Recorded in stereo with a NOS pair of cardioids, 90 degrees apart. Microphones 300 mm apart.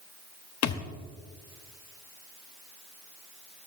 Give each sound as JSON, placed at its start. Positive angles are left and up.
{"t": 0.6, "sound": "a thud", "azimuth_deg": 60, "distance_m": 1.2}